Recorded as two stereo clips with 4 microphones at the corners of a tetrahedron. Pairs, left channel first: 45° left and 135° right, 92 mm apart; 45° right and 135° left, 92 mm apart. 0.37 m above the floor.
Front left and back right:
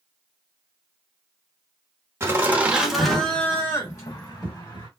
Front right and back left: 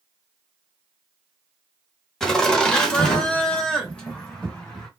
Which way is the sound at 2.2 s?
125° right.